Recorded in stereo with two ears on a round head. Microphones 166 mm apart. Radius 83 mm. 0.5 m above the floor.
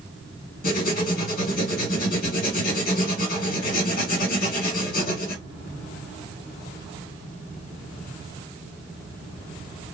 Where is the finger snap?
I don't hear a finger snap.